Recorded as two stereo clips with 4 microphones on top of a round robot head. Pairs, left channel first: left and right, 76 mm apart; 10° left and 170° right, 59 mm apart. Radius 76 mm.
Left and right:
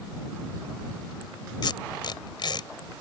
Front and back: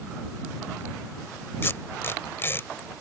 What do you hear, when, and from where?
1.6 s tape being pulled: 65° left